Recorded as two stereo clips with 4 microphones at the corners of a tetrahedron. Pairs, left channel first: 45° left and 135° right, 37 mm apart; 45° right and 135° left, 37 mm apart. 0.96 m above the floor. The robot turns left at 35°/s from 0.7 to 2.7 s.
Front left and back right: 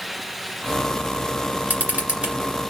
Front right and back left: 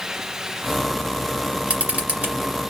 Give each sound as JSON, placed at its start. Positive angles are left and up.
{"t": 1.7, "sound": "a camera shutter", "azimuth_deg": -170, "distance_m": 2.5}